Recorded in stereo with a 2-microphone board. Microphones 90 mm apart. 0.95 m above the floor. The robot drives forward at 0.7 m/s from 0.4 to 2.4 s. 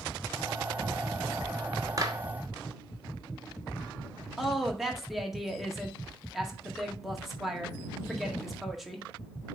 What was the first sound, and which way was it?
A clap, 40° right (ahead or behind).